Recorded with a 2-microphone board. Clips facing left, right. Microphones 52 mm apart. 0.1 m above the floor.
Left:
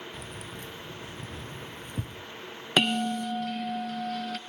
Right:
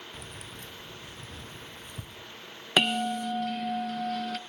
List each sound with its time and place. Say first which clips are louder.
0.1 s keys jangling: left 3 dB; 5° right (ahead or behind), 1.0 m; by 2.2 s 50° left (ahead or behind), 1.3 m
2.8 s a bell: even; 5° right (ahead or behind), 0.6 m